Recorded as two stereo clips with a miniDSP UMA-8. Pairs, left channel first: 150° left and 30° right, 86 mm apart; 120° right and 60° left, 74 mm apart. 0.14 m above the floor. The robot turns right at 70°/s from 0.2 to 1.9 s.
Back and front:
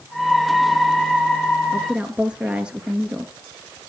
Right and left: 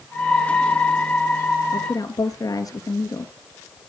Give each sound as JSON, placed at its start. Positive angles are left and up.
{"t": 1.7, "sound": "a woman speaking", "azimuth_deg": -120, "distance_m": 2.5}